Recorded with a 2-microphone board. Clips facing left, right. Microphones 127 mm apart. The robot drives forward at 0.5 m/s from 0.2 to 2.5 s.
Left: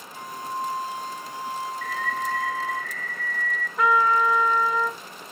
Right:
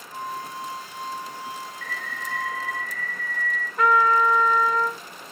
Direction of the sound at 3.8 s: 5° left (ahead or behind).